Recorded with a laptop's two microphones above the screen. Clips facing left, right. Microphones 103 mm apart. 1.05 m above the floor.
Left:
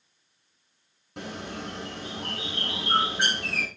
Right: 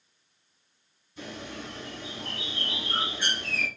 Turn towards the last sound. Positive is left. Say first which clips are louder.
# left 3 dB
turn(degrees=85)